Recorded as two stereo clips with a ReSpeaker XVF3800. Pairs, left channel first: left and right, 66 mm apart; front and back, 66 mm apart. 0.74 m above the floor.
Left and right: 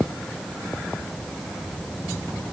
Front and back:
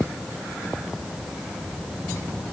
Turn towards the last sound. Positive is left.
No sound to turn to.